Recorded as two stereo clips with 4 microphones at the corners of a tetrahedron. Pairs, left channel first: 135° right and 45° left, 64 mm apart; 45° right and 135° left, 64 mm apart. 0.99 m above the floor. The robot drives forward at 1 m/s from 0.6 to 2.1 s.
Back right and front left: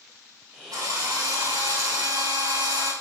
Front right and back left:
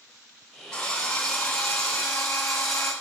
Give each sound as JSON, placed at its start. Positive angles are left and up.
{"t": 0.7, "sound": "a drill", "azimuth_deg": 30, "distance_m": 7.5}